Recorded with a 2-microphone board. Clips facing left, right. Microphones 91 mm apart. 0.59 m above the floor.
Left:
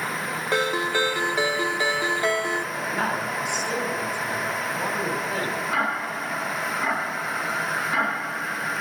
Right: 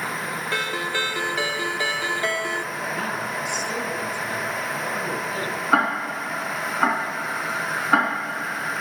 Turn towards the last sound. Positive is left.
turn(degrees=-75)  # may be behind; listen again after turning